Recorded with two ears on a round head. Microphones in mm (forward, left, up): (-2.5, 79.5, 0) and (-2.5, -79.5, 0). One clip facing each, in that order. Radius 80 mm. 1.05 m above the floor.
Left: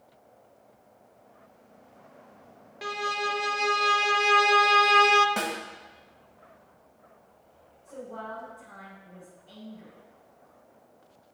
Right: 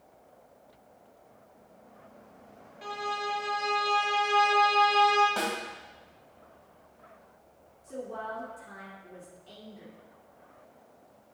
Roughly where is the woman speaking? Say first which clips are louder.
Right 2 dB; right.